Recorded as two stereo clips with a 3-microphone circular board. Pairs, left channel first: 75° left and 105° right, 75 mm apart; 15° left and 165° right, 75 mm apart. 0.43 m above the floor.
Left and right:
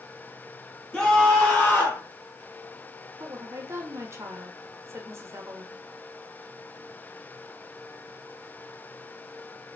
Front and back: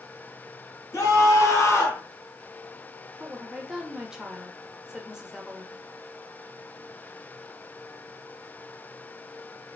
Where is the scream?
5° left, 2.5 m; by 2.0 s 40° left, 1.6 m.